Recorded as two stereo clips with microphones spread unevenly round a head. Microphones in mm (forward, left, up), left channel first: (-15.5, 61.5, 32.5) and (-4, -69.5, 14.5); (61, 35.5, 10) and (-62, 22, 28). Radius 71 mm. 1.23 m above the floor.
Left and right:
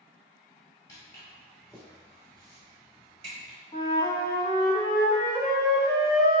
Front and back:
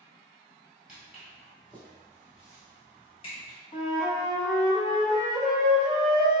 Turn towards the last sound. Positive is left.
turn(degrees=50)